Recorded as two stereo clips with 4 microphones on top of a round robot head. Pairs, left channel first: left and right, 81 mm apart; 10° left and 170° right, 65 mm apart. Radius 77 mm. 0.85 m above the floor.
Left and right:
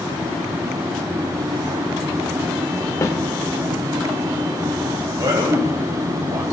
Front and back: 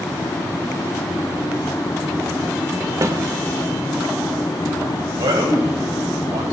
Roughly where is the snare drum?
Behind left.